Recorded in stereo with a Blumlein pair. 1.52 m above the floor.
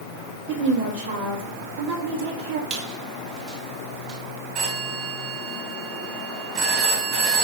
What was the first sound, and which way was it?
A woman speaking, 60° right.